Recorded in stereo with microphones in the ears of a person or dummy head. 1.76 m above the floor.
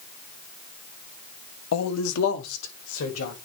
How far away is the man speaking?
About 0.7 m.